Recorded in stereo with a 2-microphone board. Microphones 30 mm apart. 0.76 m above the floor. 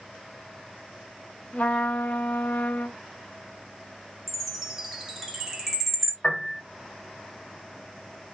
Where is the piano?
45° left (ahead or behind), 1.2 m.